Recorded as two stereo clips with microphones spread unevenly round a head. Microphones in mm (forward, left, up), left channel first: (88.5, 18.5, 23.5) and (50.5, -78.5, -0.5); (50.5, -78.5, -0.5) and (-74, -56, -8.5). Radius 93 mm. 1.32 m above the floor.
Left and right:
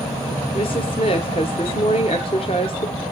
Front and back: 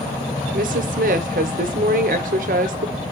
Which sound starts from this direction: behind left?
A woman speaking, at 0.5 s.